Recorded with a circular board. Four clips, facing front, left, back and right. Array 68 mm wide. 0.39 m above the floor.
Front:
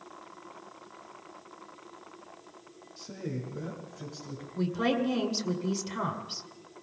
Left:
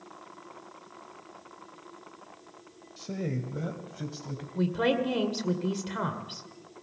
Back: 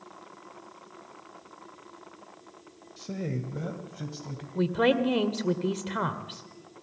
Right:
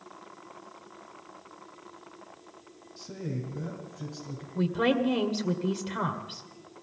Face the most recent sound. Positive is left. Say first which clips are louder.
# right 1 dB, back 4 dB
turn(degrees=180)